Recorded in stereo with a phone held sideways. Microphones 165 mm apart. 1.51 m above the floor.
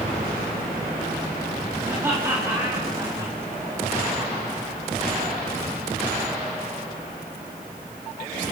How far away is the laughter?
About 4 m.